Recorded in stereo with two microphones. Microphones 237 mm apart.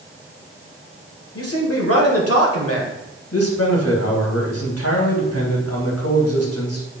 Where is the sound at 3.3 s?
85° left, 3 m.